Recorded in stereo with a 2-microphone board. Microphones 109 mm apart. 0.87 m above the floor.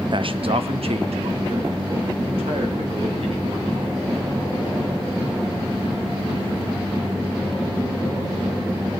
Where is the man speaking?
50° right (ahead or behind), 0.5 m; by 4.1 s 80° right, 4 m.